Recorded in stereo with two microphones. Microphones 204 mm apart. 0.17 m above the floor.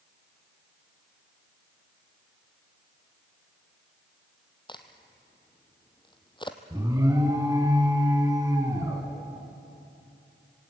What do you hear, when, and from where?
4.7 s a crack: 25° left (ahead or behind), 1.4 m
6.7 s an alarm: 15° right (ahead or behind), 2.5 m